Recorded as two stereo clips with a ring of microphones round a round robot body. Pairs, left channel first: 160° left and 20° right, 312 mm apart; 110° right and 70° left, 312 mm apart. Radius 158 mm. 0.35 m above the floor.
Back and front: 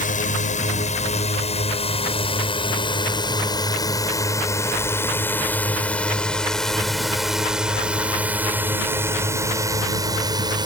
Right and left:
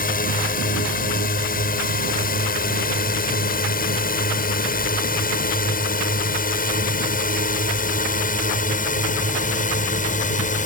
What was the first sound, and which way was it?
A drone, 155° right.